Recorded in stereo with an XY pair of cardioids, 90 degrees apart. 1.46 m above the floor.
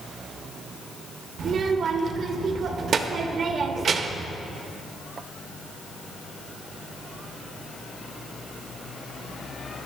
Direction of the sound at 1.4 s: 60° right.